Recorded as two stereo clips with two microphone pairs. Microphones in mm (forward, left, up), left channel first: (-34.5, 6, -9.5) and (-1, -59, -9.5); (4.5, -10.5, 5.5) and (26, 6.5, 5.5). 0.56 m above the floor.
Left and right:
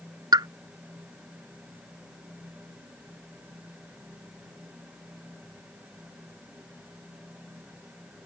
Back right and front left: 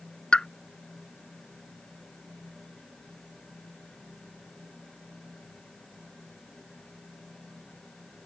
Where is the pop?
85° right.